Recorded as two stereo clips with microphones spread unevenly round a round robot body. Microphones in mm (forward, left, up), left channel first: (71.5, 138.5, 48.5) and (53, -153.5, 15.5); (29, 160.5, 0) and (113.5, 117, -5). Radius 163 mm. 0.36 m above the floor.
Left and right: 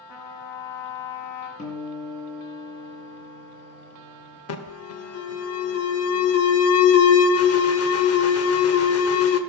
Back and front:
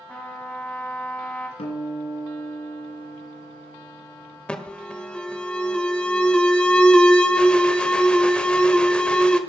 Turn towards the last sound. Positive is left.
turn(degrees=75)